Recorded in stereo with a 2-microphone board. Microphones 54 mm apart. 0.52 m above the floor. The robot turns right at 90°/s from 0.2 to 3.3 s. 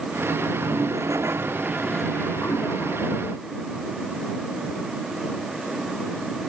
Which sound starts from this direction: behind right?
A toilet flushing, at 0.5 s.